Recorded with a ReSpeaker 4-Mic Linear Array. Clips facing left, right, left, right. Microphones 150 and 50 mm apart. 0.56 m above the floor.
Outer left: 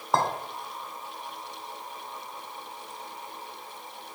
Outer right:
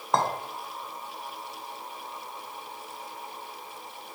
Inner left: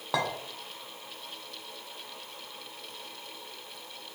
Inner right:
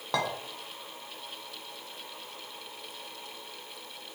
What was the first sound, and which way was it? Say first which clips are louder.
A clink: even, even; 5° left (ahead or behind).